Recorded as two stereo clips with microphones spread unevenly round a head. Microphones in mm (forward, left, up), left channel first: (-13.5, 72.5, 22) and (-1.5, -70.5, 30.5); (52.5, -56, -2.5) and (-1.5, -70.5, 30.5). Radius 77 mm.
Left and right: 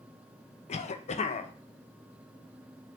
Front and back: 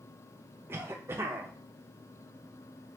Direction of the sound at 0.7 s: 115° left.